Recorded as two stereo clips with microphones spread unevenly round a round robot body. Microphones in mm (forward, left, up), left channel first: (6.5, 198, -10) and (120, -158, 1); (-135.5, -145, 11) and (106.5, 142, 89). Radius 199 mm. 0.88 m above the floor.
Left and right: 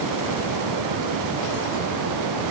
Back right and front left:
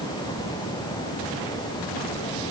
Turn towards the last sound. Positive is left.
No sound to turn to.